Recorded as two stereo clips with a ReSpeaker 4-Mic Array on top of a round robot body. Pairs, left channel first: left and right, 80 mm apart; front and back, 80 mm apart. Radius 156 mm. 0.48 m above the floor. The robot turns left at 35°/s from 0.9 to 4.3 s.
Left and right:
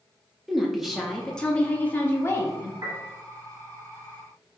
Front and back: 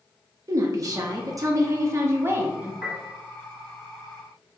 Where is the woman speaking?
Straight behind, 0.8 m; by 2.7 s 120° left, 0.8 m.